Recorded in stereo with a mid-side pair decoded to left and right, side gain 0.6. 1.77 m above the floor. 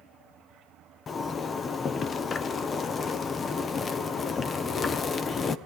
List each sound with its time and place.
1.1 s a zipper: 35° left, 1.2 m